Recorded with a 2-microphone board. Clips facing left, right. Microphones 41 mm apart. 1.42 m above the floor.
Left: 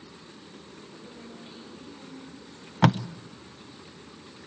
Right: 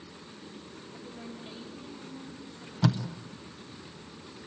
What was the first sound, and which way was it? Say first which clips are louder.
A woman speaking: right 2 dB; centre (ahead or behind).